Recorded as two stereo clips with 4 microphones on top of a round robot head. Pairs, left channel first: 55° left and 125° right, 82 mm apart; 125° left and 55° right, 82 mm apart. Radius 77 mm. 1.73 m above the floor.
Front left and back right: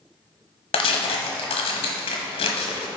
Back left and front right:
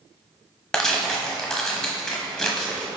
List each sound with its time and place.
0.7 s tearing paper: 45° left, 1.1 m